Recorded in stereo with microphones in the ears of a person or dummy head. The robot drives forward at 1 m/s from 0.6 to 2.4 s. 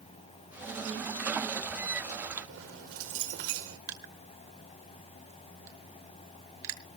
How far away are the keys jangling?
About 3 m.